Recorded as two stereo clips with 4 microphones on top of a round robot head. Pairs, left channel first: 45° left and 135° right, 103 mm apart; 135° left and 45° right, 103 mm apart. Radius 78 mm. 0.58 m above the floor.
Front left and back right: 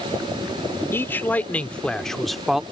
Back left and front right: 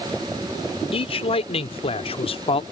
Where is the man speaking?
115° left; by 2.6 s 145° left.